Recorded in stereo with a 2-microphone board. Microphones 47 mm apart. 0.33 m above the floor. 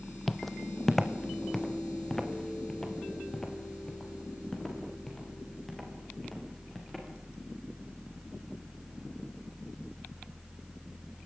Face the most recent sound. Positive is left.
turn(degrees=10)  # may be behind; listen again after turning